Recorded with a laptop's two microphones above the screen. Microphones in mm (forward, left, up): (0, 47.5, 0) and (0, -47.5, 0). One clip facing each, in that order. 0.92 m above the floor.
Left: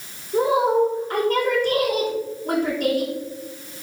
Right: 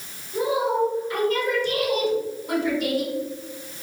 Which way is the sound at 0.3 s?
50° left (ahead or behind).